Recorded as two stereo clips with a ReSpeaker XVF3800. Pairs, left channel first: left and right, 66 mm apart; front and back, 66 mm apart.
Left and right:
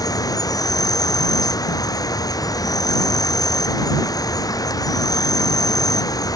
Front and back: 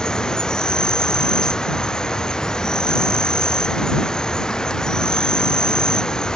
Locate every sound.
0.0 s an insect: 80° left